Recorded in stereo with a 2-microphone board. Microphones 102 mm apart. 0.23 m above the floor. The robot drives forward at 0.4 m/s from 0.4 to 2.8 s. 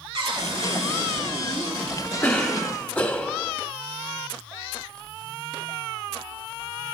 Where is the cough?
20° left (ahead or behind), 1.1 m; by 3.5 s 15° left (ahead or behind), 1.1 m.